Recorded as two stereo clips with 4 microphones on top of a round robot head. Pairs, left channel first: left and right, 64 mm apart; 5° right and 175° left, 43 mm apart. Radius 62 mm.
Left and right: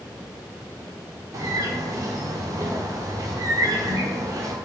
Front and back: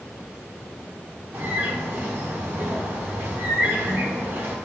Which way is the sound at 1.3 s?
130° right.